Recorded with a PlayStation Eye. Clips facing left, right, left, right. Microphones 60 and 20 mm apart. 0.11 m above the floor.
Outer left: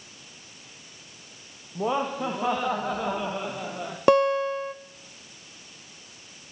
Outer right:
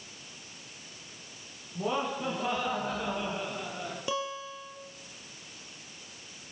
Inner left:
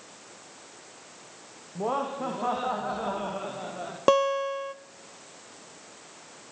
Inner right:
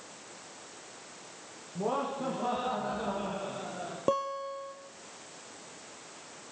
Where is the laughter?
40° left (ahead or behind), 6.5 m; by 4.0 s 65° left (ahead or behind), 7.5 m.